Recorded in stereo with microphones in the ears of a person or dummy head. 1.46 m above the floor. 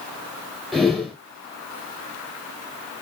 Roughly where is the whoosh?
Centre.